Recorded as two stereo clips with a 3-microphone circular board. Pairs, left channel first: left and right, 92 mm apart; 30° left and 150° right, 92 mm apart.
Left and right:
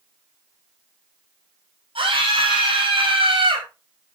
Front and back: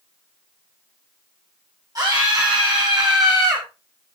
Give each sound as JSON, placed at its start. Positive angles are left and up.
{"t": 1.9, "sound": "a scream", "azimuth_deg": -100, "distance_m": 8.0}